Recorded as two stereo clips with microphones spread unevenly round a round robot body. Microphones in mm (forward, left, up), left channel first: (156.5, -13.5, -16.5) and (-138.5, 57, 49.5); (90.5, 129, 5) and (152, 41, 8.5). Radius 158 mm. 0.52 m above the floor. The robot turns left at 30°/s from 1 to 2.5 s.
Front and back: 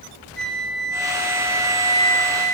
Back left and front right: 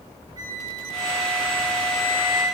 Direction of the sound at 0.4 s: 85° right.